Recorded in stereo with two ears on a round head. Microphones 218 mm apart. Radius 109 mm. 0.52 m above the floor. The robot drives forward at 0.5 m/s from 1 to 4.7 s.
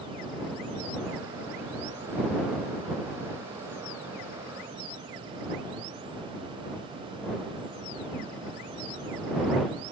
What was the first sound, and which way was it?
Only background noise.